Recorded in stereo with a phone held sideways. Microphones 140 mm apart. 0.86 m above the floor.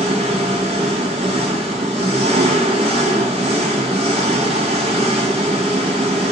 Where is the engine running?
45° right (ahead or behind), 1.4 m.